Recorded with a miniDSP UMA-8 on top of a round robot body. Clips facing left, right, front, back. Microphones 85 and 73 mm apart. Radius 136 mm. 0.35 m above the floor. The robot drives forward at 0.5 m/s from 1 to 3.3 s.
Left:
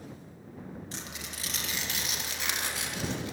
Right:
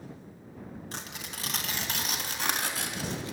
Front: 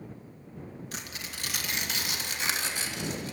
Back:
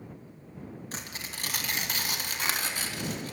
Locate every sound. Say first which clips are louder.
0.9 s tearing paper: right 1 dB, back 1 dB; 125° right, 3.5 m; by 3.3 s 140° right, 4 m